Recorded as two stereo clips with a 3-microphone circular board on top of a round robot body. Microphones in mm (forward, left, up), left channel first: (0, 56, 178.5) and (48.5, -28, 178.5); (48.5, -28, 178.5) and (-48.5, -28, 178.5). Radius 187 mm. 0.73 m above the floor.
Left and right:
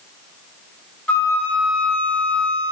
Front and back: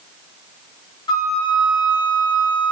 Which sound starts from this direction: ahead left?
A flute, at 1.1 s.